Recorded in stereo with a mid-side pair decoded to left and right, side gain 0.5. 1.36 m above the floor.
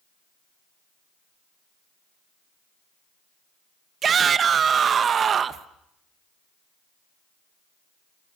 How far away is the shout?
About 1.4 m.